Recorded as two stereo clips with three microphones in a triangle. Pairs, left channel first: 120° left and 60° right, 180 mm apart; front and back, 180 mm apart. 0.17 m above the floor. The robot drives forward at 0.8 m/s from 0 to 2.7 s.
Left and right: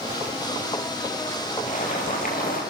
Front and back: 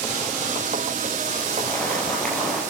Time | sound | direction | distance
1.7 | boiling | 80° left | 5 m